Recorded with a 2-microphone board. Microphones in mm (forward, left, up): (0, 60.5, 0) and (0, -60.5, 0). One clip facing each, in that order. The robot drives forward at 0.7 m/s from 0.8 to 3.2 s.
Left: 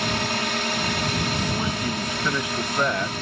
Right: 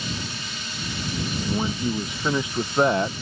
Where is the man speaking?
15° right (ahead or behind); by 3.1 s 30° right (ahead or behind).